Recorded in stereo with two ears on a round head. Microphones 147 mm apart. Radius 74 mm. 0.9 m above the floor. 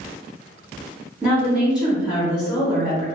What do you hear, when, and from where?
1.2 s a woman speaking: 5° right (ahead or behind), 0.7 m